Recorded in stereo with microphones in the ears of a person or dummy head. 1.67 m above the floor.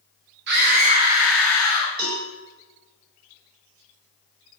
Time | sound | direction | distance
0.5 | a scream | 60° right (ahead or behind) | 0.6 m
2.0 | a cowbell | 55° right (ahead or behind) | 1.7 m